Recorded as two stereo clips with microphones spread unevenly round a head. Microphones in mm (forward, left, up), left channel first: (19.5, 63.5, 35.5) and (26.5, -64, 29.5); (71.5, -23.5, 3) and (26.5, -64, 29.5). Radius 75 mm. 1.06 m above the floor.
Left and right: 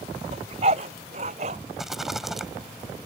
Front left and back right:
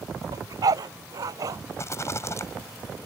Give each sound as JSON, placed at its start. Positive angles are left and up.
{"t": 0.3, "sound": "a dog barking", "azimuth_deg": -135}
{"t": 1.8, "sound": "a rattle", "azimuth_deg": 0}